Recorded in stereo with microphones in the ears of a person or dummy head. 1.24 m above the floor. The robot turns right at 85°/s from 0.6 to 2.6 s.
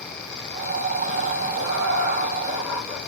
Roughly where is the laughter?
Right.